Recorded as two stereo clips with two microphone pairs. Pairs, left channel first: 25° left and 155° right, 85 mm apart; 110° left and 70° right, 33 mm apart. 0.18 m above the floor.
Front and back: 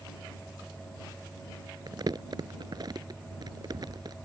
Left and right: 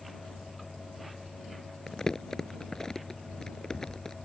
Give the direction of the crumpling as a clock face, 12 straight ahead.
6 o'clock.